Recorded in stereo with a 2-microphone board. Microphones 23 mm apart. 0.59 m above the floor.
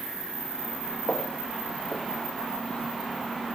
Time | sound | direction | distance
1.1 | footsteps | 30° left (ahead or behind) | 4 m